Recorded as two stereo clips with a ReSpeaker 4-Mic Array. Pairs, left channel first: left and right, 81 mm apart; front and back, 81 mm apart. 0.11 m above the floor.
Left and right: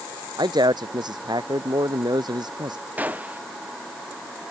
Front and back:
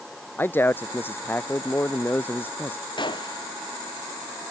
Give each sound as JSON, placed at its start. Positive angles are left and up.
{"t": 0.4, "sound": "a man speaking", "azimuth_deg": -65}
{"t": 3.0, "sound": "a gunshot", "azimuth_deg": -20}